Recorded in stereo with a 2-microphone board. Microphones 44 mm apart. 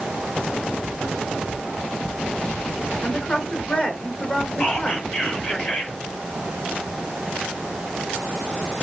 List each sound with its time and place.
3.0 s a woman speaking: 25° left (ahead or behind), 3 m
4.6 s whispering: 30° left (ahead or behind), 5.5 m